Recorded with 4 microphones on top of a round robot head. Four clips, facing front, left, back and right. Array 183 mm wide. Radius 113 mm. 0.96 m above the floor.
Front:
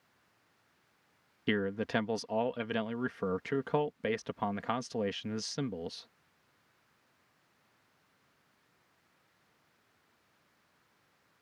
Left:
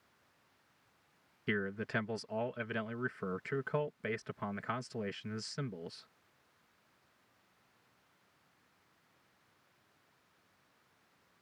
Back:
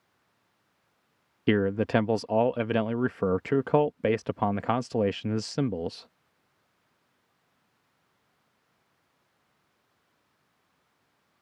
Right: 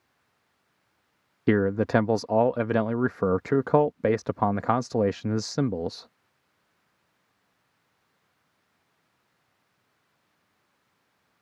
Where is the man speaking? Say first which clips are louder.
Right 15 dB, back 8 dB; 115° right.